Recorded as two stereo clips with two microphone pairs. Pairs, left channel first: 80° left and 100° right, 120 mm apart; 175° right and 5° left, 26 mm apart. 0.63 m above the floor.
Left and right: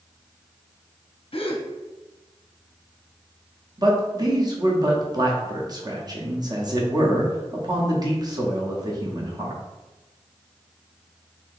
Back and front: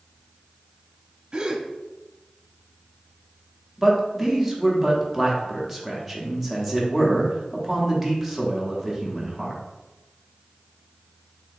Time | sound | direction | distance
1.3 | a gasp | 60° left | 0.6 m
3.8 | a man speaking | 85° right | 0.9 m